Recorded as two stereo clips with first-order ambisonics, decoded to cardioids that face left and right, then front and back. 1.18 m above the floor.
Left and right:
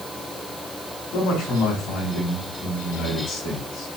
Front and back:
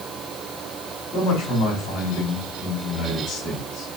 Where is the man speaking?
40° left, 3 m.